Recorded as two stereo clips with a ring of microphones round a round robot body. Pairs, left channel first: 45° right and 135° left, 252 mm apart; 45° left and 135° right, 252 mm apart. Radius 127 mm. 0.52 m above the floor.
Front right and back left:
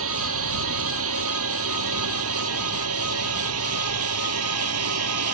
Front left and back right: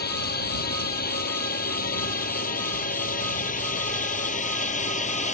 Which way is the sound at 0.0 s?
100° left.